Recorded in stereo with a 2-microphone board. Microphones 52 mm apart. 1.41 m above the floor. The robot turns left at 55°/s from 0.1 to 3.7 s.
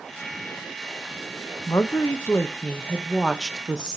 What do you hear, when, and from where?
1.7 s a woman speaking: 95° left, 1.0 m; by 4.0 s 20° right, 1.0 m